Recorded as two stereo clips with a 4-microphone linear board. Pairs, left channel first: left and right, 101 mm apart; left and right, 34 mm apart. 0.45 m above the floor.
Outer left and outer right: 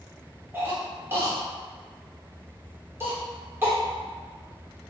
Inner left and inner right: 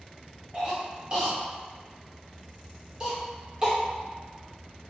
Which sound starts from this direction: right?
A cough, at 0.5 s.